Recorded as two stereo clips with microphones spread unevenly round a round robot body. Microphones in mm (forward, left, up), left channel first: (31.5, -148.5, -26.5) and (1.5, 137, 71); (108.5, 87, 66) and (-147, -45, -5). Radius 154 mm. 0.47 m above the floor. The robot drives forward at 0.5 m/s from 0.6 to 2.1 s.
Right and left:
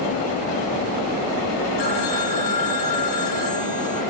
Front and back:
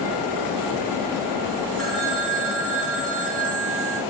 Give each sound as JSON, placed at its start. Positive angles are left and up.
{"t": 1.8, "sound": "a phone ringing", "azimuth_deg": -90, "distance_m": 4.5}